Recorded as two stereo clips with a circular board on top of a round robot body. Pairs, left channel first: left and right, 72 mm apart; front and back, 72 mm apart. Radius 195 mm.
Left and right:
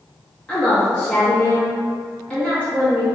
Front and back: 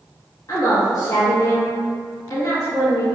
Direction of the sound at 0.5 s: 15° left.